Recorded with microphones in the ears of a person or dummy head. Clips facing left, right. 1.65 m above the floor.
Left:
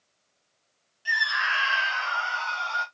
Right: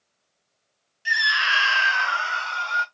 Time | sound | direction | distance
1.1 | a scream | 30° right (ahead or behind) | 0.8 m